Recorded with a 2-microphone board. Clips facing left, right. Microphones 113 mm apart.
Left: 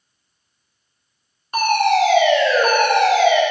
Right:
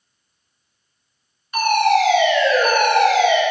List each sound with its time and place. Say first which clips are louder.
1.5 s a fire alarm: even; 45° left (ahead or behind), 2.5 m